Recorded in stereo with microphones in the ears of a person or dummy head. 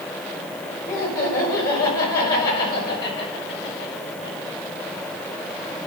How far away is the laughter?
About 6.5 m.